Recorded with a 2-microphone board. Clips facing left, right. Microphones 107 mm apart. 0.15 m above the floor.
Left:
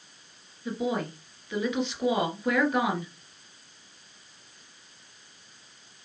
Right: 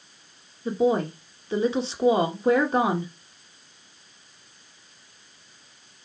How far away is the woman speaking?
About 1.8 m.